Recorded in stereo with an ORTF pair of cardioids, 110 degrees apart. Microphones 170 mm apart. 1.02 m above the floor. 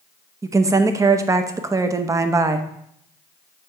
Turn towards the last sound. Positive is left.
turn(degrees=-20)